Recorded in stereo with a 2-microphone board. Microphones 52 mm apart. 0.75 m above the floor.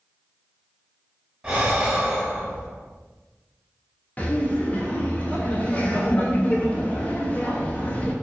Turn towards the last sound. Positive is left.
turn(degrees=30)  # may be behind; listen again after turning